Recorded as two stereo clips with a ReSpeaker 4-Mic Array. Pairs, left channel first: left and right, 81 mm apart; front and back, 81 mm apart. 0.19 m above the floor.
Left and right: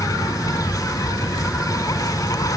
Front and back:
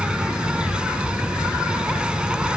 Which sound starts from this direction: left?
An insect, at 0.0 s.